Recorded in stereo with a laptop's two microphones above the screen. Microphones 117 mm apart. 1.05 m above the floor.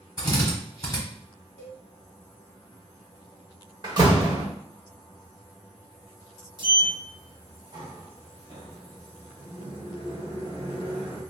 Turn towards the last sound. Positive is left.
turn(degrees=-40)  # may be behind; listen again after turning